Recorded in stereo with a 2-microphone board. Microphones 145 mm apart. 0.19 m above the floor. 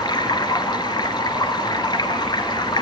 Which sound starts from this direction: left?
Running water, at 0.0 s.